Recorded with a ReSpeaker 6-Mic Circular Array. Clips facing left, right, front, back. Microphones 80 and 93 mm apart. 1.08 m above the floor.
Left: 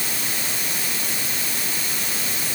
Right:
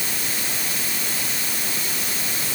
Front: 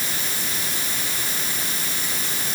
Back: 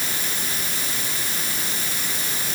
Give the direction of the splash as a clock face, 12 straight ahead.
I don't hear a splash.